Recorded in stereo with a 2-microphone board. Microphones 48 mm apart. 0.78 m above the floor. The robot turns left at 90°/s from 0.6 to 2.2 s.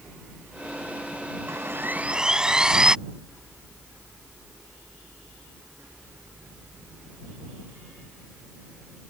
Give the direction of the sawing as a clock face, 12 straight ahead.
3 o'clock.